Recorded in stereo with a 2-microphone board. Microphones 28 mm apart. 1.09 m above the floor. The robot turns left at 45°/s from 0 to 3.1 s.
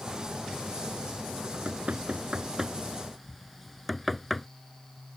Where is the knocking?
75° right (ahead or behind); by 4.5 s centre (ahead or behind).